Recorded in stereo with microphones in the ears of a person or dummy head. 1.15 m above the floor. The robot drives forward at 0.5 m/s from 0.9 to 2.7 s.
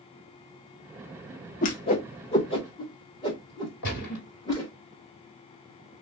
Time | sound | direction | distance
1.6 | a whoosh | 40° left (ahead or behind) | 0.5 m
3.8 | a gunshot | 60° left (ahead or behind) | 1.3 m